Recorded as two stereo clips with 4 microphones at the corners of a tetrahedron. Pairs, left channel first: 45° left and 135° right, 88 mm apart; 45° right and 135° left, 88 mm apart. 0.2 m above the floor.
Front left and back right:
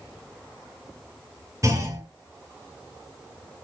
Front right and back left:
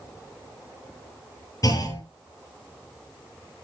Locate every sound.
1.6 s a clunk: 85° right, 4.5 m